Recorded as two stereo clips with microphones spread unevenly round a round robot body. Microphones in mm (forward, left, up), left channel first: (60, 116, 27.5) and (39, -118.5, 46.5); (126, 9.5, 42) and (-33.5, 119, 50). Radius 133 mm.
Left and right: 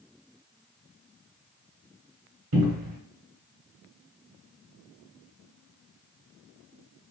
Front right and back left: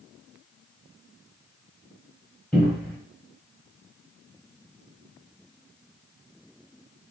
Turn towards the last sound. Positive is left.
turn(degrees=-120)